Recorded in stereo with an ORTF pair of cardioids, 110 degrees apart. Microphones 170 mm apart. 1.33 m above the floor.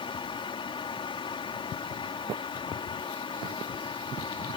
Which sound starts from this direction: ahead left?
A fan, at 0.0 s.